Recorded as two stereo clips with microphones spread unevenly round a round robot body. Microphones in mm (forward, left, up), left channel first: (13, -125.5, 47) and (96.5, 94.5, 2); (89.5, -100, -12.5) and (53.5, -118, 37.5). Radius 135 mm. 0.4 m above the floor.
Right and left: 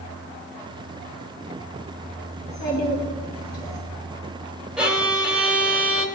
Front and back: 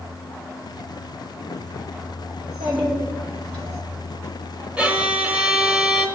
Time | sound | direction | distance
2.4 | a child speaking | 170° left | 2.5 m
4.8 | a violin | straight ahead | 0.9 m